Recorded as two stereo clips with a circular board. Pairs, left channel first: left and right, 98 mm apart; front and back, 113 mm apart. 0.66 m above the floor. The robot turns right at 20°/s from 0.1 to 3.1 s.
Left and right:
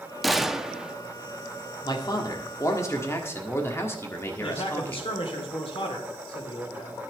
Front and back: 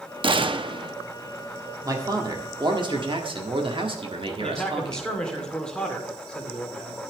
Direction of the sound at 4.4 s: 80° left.